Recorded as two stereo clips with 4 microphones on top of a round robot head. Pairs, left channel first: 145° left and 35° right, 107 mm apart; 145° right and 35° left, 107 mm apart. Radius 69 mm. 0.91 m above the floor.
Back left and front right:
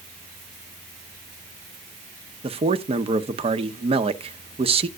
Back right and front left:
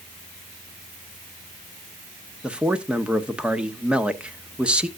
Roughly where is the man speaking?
Ahead right.